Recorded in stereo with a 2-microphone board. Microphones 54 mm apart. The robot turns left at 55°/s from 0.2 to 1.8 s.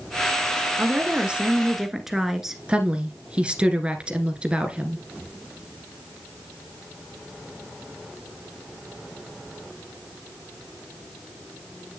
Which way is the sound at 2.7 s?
20° right (ahead or behind).